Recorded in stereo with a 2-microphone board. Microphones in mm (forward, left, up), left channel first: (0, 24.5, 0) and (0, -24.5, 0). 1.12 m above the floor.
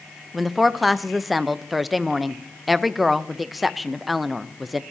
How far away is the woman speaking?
About 0.7 m.